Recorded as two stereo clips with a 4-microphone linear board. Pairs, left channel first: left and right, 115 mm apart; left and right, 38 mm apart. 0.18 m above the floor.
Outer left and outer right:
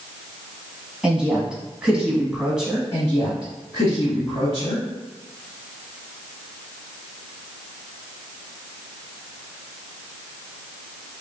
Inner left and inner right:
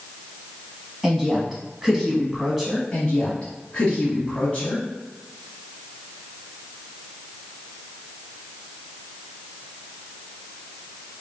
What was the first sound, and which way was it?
A woman speaking, 5° right (ahead or behind).